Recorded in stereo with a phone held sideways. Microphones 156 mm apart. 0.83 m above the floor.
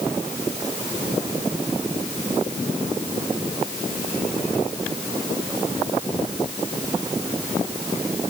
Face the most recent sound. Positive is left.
No sound to turn to.